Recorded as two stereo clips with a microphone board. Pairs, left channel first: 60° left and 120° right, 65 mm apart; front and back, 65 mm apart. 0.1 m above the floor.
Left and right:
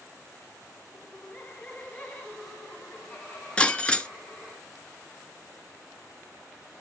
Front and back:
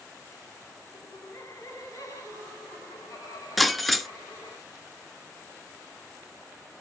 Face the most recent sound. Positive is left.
turn(degrees=90)